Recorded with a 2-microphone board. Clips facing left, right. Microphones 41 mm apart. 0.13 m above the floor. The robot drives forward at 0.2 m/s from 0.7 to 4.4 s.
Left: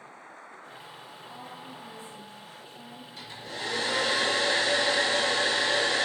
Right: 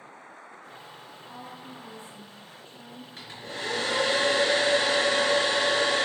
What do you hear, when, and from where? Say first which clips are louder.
1.3 s a woman speaking: right 1 dB; 50° right (ahead or behind), 2.0 m
3.2 s a hair dryer: right 1 dB; 35° right (ahead or behind), 1.8 m